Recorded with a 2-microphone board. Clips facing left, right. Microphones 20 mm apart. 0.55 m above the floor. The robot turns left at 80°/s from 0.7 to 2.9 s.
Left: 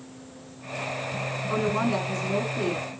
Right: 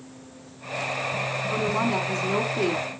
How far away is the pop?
I don't hear a pop.